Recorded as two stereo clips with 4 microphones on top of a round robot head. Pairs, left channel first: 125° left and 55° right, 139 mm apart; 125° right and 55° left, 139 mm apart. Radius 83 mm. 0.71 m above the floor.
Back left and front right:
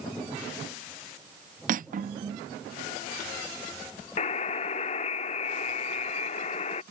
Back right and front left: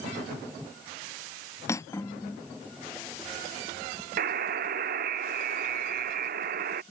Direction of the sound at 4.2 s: 80° left.